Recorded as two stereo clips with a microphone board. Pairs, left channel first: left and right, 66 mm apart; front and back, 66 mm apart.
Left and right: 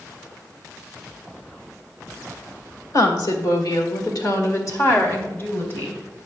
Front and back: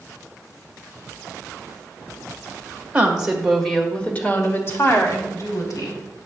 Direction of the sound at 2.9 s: 110° left.